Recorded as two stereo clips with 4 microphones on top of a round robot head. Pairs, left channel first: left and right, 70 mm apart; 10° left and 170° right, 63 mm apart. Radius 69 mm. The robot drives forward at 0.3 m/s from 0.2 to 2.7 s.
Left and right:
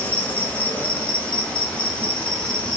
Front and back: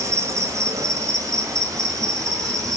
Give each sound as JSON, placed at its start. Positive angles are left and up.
{"t": 0.0, "sound": "an insect", "azimuth_deg": 155, "distance_m": 1.6}